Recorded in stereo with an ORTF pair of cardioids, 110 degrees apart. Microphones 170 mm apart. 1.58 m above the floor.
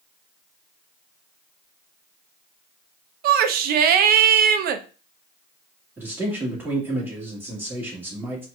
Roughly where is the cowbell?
I don't hear a cowbell.